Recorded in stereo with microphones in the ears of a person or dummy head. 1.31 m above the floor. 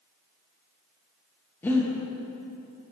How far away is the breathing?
About 1.1 m.